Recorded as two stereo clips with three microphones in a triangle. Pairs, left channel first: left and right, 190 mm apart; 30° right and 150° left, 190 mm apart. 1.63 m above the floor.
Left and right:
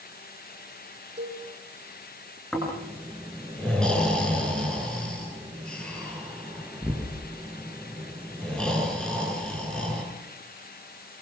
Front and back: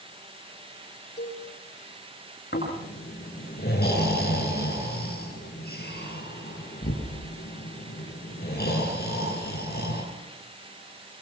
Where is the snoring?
5° left, 9 m.